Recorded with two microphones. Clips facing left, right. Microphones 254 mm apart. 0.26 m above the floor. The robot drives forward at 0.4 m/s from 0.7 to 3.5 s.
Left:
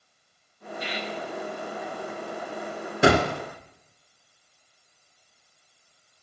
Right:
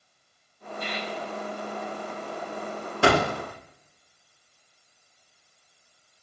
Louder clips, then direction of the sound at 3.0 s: Left 2 dB; 25° left (ahead or behind).